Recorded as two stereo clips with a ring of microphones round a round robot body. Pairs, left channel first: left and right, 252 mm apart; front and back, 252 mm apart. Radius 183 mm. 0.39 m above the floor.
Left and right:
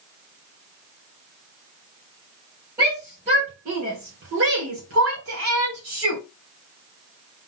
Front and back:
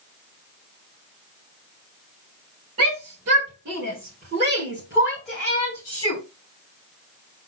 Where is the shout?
165° right, 2.5 m; by 6.2 s 70° right, 2.5 m.